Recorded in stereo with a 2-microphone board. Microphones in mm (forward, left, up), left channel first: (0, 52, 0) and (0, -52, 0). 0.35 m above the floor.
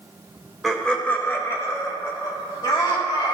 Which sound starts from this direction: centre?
Laughter, at 0.6 s.